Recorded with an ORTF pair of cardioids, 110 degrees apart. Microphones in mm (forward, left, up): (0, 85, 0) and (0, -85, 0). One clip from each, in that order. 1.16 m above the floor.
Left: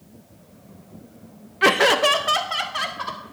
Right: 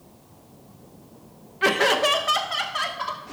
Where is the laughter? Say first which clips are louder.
Left 3 dB; 25° left, 0.6 m; by 3.2 s 15° left, 2.5 m.